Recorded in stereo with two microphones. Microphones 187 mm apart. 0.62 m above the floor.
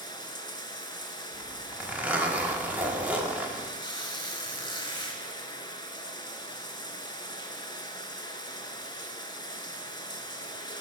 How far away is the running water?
About 0.8 m.